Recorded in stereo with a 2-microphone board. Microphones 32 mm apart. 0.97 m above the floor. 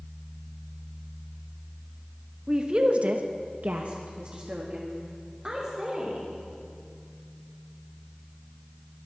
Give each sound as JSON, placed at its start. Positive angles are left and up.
{"t": 2.5, "sound": "a woman speaking", "side_deg": -20, "distance_m": 1.3}